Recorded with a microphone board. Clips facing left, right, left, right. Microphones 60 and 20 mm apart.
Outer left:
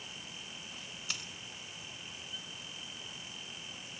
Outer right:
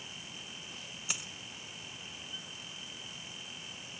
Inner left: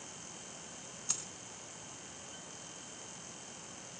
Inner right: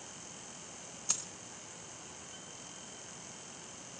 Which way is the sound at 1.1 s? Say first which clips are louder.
Outer right 1 dB, inner right 3 dB; 15° right (ahead or behind).